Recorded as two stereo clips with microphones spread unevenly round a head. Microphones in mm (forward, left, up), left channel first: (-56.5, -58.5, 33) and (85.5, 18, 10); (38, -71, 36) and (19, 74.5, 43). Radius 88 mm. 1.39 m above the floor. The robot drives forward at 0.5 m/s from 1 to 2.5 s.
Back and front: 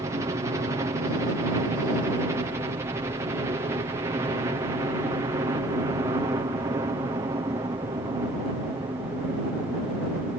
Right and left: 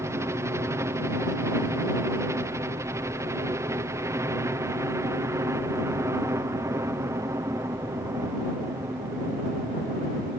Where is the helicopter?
45° left; by 10.4 s 50° left.